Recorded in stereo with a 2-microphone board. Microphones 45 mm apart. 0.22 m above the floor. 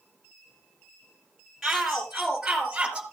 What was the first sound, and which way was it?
A shout, 5° right (ahead or behind).